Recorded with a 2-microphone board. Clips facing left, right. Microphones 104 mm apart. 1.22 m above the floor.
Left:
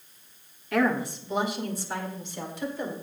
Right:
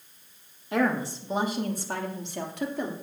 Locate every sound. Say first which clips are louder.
0.7 s a woman speaking: left 1 dB; 25° right (ahead or behind), 2.5 m; by 2.9 s 75° right (ahead or behind), 3.5 m